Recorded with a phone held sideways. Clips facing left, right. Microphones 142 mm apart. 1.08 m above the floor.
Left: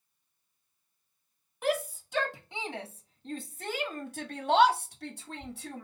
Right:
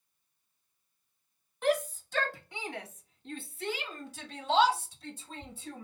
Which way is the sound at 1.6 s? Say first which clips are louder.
Right 1 dB; 5° left (ahead or behind).